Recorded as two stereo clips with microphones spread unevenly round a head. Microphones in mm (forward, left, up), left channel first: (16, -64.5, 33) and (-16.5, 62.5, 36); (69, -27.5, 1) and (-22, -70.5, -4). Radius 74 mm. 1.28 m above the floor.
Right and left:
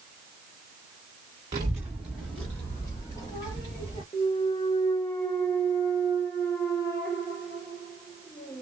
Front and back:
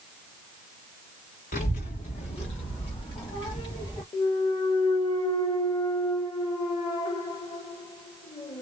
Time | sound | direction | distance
1.5 | a child speaking | 45° left | 1.1 m
4.1 | a clunk | 5° right | 1.2 m